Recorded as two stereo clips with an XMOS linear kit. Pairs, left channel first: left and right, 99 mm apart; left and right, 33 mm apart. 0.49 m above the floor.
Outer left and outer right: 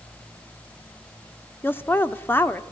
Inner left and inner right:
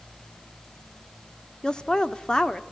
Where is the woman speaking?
20° left (ahead or behind), 0.8 m.